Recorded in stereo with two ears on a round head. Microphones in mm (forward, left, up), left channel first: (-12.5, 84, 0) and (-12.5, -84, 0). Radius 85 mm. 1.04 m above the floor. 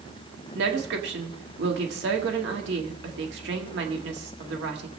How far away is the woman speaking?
About 1.8 m.